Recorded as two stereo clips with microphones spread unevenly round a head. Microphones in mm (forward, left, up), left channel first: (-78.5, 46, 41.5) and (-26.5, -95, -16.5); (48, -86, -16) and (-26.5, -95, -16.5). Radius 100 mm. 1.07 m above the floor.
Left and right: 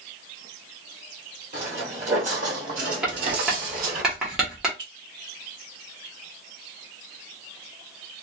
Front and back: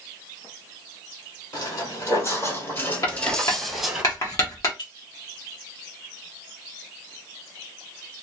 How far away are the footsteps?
About 1.9 m.